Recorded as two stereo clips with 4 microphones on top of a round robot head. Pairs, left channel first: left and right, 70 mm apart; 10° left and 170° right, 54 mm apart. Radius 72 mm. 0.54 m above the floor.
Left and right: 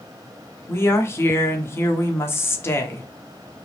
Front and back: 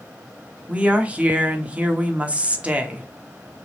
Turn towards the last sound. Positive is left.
turn(degrees=130)